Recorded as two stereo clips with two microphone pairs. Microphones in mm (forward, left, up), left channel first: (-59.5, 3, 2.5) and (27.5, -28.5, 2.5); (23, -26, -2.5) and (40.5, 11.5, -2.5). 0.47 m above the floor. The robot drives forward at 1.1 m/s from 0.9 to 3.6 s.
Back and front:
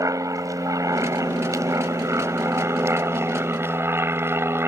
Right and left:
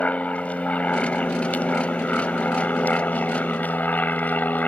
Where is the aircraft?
65° right; by 4.7 s 80° right.